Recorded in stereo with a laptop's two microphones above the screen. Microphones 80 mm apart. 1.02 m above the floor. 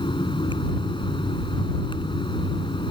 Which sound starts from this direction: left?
A fan, at 0.0 s.